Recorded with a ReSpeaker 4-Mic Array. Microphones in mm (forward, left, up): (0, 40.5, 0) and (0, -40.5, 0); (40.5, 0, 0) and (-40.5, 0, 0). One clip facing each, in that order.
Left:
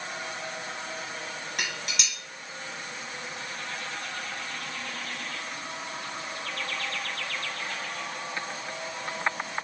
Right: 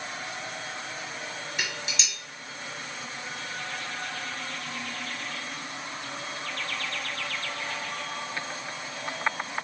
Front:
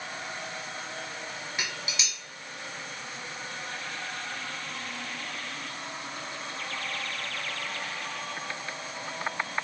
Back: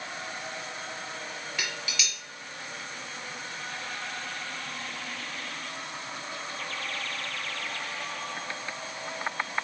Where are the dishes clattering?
65° left, 1.4 m.